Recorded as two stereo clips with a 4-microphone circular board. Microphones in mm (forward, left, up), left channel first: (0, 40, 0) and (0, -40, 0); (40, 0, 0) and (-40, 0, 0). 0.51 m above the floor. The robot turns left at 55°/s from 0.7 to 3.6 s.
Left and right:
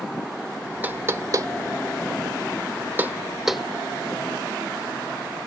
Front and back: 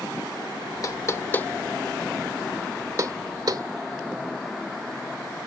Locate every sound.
0.8 s knocking: 30° right; by 3.6 s straight behind